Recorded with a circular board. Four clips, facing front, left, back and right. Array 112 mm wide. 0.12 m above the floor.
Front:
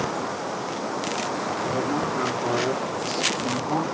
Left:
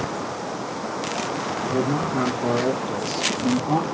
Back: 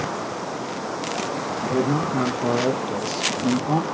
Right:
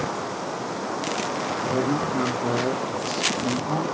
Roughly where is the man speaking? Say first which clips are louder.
Left 1 dB, back 5 dB; behind.